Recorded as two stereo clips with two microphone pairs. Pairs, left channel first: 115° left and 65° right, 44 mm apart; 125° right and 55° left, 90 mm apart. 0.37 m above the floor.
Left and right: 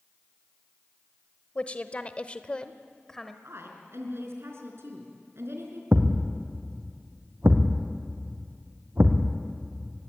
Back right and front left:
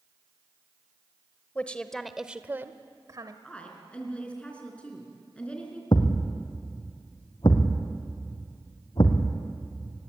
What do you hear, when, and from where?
1.6 s a woman speaking: 165° left, 1.5 m; by 3.3 s 35° left, 1.5 m
3.4 s a woman speaking: 50° right, 5 m
5.9 s a thud: 90° right, 3 m